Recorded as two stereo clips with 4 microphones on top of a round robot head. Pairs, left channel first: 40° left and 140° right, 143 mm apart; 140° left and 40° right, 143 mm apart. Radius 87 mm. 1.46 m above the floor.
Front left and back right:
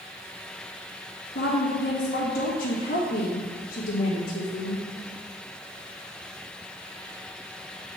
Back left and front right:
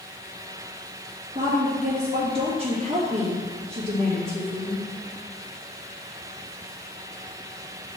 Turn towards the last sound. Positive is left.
turn(degrees=10)